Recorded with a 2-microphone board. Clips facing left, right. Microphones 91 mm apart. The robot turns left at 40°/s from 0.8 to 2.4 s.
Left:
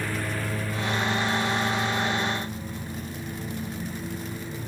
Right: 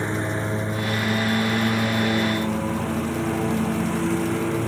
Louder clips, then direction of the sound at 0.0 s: Right 5 dB; 25° right.